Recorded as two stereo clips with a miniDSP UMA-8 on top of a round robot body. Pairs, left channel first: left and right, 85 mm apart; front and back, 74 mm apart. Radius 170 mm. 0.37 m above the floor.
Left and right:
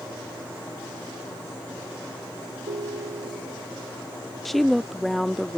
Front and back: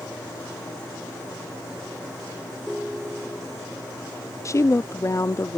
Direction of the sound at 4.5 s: Straight ahead.